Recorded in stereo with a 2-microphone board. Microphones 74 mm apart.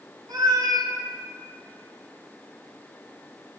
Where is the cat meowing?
65° right (ahead or behind), 1.0 m.